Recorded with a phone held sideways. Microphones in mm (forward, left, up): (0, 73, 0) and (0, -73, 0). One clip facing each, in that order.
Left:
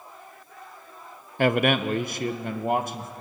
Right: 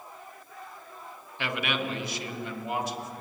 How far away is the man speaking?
About 0.9 m.